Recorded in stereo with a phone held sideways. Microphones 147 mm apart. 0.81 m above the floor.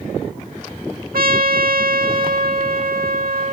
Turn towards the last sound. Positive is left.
turn(degrees=-75)  # may be behind; listen again after turning